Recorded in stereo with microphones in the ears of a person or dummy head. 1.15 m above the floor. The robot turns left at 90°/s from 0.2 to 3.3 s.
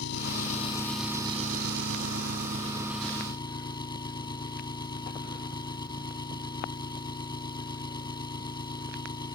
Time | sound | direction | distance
0.0 | an engine running | 70° left | ?